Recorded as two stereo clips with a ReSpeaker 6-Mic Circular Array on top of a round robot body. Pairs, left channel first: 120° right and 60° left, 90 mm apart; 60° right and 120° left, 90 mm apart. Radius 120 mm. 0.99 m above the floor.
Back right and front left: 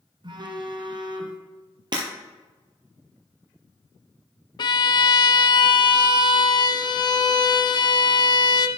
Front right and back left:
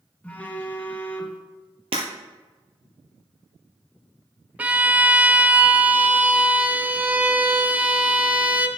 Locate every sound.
0.2 s a phone buzzing: 15° left, 0.9 m
1.9 s breaking glass: 100° left, 1.3 m
4.6 s a violin: 165° right, 0.6 m